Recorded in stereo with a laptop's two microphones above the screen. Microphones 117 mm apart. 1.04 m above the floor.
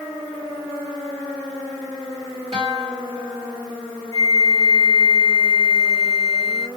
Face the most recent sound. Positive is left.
turn(degrees=-60)  # may be behind; listen again after turning